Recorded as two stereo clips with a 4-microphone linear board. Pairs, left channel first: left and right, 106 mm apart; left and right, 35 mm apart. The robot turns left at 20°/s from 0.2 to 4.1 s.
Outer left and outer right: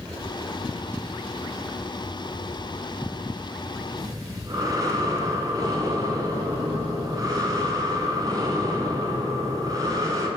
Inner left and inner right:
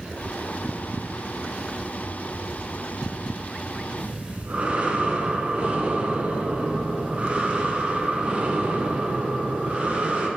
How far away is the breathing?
About 1.8 m.